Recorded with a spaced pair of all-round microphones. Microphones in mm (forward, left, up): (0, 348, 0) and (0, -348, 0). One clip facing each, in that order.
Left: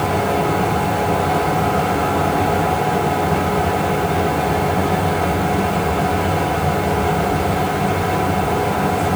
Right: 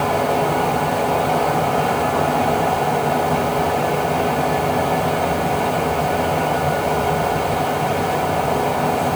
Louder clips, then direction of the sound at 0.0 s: Even; 45° left (ahead or behind).